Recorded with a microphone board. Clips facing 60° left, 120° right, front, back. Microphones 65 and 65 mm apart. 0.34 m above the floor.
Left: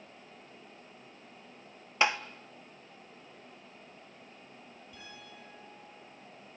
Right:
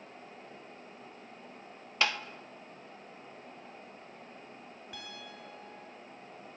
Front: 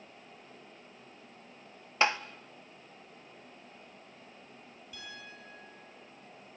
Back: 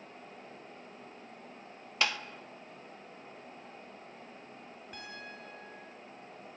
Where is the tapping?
15° left, 0.9 m.